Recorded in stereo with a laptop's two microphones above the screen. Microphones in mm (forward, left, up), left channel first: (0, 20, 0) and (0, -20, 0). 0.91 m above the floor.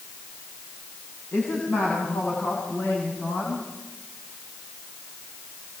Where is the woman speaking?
75° left (ahead or behind), 8 m.